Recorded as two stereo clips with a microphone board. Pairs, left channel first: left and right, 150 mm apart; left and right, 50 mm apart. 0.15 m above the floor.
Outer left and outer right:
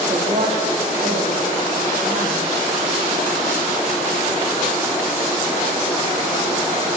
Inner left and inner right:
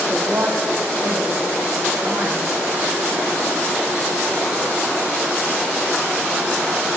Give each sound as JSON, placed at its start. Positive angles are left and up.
{"t": 0.1, "sound": "a woman speaking", "side_deg": -40, "distance_m": 8.5}